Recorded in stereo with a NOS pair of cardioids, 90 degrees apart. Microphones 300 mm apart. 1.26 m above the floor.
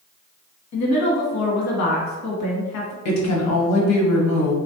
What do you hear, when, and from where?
0.7 s a woman speaking: 70° left, 1.3 m
3.0 s a woman speaking: 70° left, 1.2 m